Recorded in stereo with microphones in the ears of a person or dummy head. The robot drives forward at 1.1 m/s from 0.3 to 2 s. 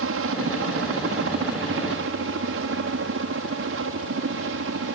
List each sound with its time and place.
0.0 s a helicopter: 65° right (ahead or behind)